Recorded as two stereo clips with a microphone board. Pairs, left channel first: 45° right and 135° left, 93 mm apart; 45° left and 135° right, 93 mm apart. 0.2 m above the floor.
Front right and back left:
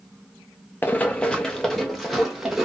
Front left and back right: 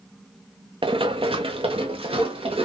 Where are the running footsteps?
115° right, 0.7 m; by 2.6 s 140° right, 1.7 m.